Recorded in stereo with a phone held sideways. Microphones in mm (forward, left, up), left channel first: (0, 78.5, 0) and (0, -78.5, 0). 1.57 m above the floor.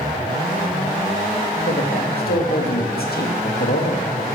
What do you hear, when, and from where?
1.7 s a man speaking: 85° left, 1.1 m